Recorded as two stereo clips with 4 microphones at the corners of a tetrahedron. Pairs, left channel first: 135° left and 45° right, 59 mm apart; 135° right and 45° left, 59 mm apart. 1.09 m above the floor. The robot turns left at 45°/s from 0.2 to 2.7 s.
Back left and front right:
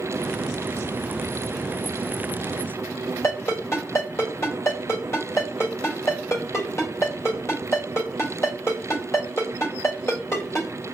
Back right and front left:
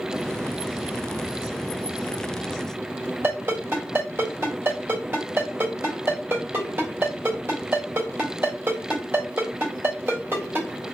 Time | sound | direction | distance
3.2 | a ringtone | 95° left | 2.0 m